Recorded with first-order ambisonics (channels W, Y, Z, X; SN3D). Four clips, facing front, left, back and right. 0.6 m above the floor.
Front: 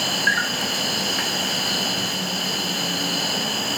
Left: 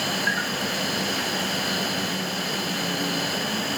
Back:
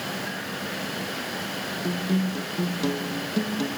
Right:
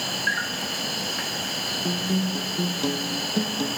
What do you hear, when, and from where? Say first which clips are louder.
0.0 s an insect: left 1 dB, front 11 dB; straight ahead, 0.9 m
1.8 s a guitar: right 1 dB, front 3 dB; 135° right, 4.5 m